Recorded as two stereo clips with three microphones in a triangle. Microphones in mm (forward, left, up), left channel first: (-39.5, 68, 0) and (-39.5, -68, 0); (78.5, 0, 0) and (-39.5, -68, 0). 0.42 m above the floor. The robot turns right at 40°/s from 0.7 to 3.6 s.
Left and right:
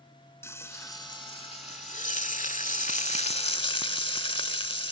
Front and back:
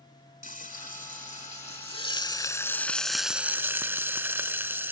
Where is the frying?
20° left; by 4.9 s 140° left.